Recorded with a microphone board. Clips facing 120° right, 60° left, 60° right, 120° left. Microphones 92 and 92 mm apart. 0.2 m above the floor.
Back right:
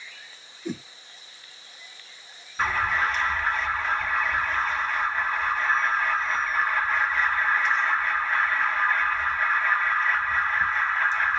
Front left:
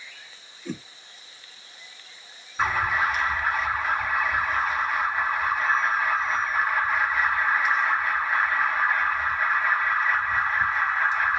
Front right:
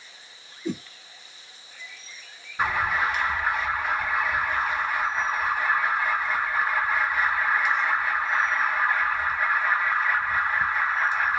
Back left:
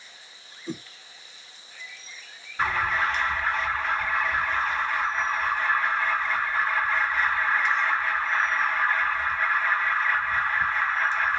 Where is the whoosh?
50° right, 0.9 m.